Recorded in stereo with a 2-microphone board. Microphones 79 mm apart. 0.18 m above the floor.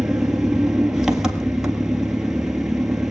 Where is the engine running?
5° right (ahead or behind), 1.5 m.